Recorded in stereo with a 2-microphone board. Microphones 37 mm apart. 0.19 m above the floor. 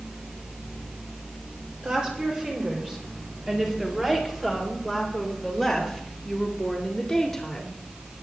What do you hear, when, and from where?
1.8 s a woman speaking: 25° right (ahead or behind), 5 m; by 7.8 s 15° left (ahead or behind), 3 m